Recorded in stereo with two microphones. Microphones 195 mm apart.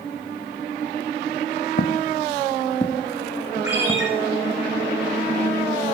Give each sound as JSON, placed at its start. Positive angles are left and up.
{"t": 1.8, "sound": "footsteps", "side_deg": 60, "distance_m": 0.6}
{"t": 3.6, "sound": "a ringtone", "side_deg": 40, "distance_m": 9.5}